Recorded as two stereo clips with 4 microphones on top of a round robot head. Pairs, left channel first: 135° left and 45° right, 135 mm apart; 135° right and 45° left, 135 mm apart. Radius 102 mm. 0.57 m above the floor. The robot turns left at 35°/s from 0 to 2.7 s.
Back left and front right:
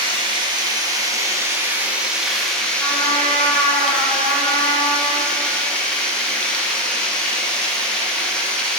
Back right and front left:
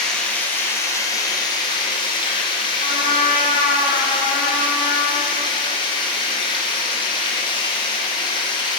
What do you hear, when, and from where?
0.0 s running water: 50° right, 0.8 m; by 8.8 s 145° right, 0.8 m
2.8 s a trumpet: 155° right, 0.9 m